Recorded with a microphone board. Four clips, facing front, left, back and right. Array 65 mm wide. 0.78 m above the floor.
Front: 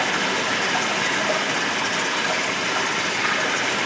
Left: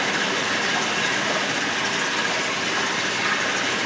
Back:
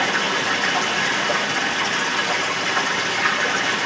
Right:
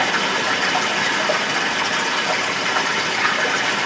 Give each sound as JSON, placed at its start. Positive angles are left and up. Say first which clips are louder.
{"t": 0.0, "sound": "running water", "louder": "right 4 dB, back 2 dB", "azimuth_deg": -80, "distance_m": 8.0}